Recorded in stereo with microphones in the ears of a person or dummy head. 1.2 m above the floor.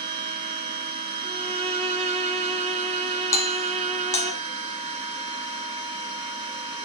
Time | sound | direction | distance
0.0 | a machine running | 30° right (ahead or behind) | 1.7 m
1.2 | a violin | 25° right (ahead or behind) | 0.8 m
3.3 | a doorbell | 20° left (ahead or behind) | 1.3 m